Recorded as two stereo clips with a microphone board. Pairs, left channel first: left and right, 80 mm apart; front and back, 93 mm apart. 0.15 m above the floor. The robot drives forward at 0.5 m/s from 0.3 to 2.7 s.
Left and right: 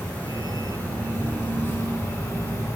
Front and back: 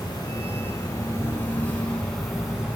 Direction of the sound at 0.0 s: 25° left.